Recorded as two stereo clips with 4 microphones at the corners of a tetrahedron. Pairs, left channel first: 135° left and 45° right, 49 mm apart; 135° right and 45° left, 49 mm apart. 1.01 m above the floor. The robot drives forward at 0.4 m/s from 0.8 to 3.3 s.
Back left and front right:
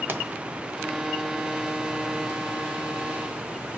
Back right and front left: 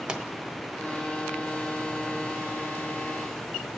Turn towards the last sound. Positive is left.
turn(degrees=-135)